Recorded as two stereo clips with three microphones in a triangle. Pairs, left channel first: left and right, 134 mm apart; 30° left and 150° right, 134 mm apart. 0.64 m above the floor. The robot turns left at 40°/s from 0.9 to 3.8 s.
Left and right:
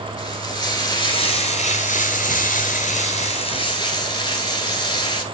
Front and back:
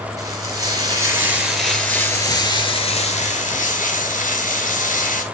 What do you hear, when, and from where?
0.2 s frying: 145° left, 2.5 m; by 5.2 s 30° left, 2.5 m